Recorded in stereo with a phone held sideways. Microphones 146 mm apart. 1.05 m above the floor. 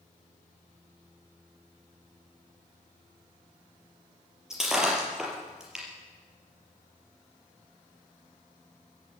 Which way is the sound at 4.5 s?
5° right (ahead or behind).